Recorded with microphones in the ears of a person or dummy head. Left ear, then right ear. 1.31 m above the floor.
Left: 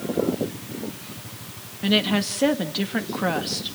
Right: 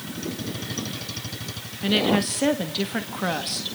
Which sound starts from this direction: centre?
A woman speaking, at 1.8 s.